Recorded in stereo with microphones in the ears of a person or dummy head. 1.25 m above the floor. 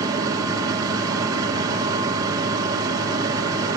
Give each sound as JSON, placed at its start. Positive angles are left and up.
{"t": 0.0, "sound": "a machine running", "side_deg": -20, "distance_m": 1.8}